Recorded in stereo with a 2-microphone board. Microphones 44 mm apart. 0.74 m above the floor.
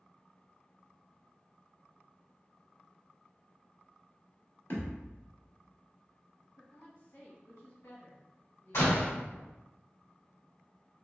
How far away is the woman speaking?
About 1.7 m.